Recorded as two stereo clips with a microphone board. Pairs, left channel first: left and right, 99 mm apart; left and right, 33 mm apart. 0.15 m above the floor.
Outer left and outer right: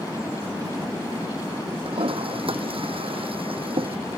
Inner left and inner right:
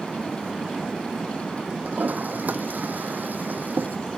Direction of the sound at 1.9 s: 70° right (ahead or behind).